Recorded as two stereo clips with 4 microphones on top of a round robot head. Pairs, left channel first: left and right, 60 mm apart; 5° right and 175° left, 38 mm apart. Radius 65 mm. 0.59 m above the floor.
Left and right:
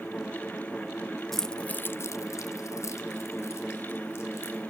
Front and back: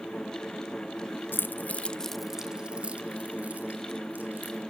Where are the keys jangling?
5° left, 1.1 m; by 4.6 s 140° left, 3.5 m.